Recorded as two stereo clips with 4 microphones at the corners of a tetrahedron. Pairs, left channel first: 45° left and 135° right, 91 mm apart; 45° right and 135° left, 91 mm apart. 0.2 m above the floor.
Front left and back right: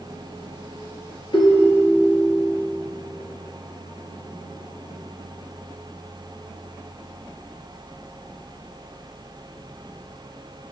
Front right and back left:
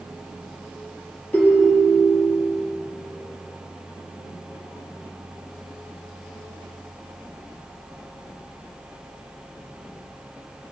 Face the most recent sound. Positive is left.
turn(degrees=25)